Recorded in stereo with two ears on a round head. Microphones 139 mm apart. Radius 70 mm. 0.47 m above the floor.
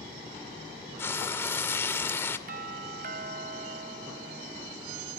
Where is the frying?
15° left (ahead or behind), 1.9 m.